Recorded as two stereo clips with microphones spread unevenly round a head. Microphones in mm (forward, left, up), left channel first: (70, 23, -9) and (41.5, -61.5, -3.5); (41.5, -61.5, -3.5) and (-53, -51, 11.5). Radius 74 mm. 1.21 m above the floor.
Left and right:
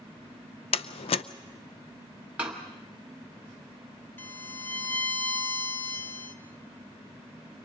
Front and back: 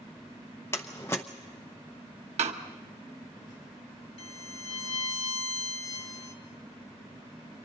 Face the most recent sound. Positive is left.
turn(degrees=5)